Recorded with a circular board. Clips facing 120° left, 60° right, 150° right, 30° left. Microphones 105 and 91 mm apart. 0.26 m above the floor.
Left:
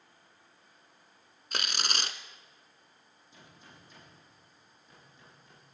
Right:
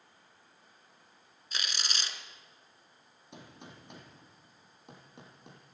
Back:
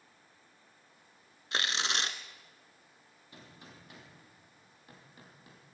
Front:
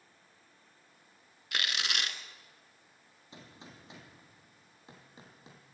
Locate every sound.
1.5 s tearing paper: 150° left, 1.2 m
3.3 s a gunshot: 40° right, 4 m